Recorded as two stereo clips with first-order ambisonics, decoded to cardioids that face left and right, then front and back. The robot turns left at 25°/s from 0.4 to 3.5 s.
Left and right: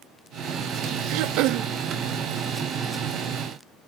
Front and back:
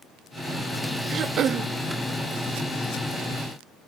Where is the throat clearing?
115° right; by 1.7 s 130° right.